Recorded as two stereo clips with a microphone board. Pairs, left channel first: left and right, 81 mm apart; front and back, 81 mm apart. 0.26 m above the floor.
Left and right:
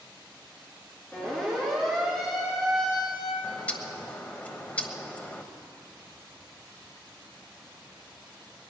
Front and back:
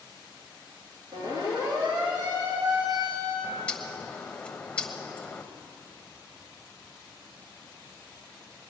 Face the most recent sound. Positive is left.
turn(degrees=50)